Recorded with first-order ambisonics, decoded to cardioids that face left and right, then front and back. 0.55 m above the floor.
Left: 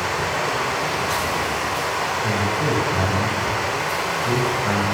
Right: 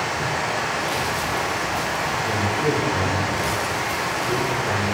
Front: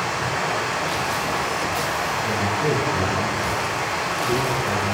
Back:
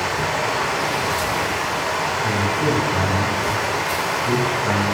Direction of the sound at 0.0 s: 135° left.